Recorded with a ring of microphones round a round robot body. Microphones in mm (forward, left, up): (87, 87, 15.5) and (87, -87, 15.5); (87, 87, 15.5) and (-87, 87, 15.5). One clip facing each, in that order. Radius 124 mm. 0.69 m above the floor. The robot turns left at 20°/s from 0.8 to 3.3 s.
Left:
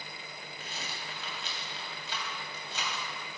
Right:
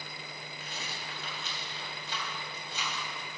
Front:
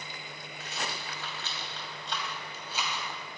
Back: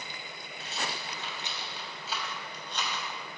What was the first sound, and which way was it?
A rattle, 120° left.